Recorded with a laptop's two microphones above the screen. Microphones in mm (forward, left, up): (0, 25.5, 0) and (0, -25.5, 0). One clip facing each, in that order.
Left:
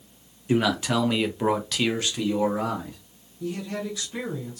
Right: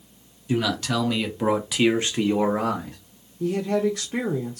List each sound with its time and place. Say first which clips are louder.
0.5 s a man speaking: left 1 dB; 20° left (ahead or behind), 1.0 m; by 3.0 s 60° right (ahead or behind), 0.8 m
3.4 s a woman speaking: right 8 dB; 50° right (ahead or behind), 0.6 m